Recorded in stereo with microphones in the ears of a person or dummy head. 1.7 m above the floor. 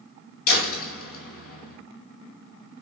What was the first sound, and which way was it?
A door slam, 75° left (ahead or behind).